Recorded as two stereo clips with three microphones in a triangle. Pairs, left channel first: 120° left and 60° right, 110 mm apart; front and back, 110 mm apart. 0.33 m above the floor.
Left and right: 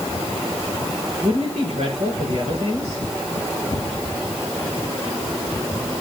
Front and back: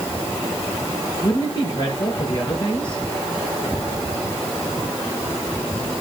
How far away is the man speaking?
About 9.5 m.